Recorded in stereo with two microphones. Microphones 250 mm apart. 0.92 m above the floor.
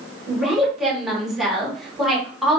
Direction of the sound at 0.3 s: Centre (ahead or behind).